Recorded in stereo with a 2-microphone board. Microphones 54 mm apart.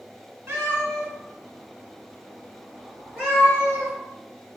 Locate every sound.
0.5 s a cat meowing: 45° right (ahead or behind), 1.6 m; by 3.9 s 20° right (ahead or behind), 5 m